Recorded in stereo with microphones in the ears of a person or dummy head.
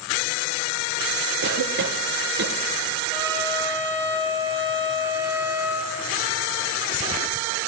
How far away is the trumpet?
About 3.5 m.